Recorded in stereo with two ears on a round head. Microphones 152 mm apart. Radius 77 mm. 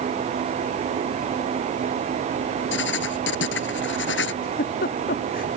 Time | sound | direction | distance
2.7 | writing | 85° left | ?
4.4 | a giggle | 60° left (ahead or behind) | ?